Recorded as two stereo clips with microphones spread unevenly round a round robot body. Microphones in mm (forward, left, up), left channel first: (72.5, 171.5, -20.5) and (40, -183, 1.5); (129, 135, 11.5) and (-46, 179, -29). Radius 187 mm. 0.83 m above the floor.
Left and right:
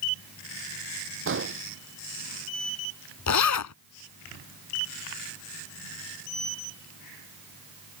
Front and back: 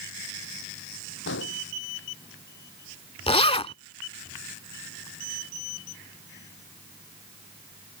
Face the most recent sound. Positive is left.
turn(degrees=40)